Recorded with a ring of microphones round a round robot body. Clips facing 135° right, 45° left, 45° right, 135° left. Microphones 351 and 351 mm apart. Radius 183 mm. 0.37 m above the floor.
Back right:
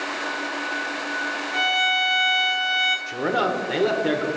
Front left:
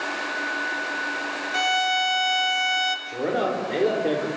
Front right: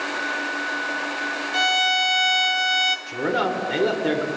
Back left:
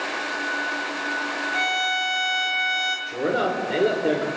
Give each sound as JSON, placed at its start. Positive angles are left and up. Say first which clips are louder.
{"t": 1.5, "sound": "a violin", "louder": "front left 1 dB, front right 3 dB", "azimuth_deg": -10, "distance_m": 1.1}
{"t": 3.1, "sound": "a man speaking", "louder": "back right 1 dB, back left 1 dB", "azimuth_deg": -100, "distance_m": 1.4}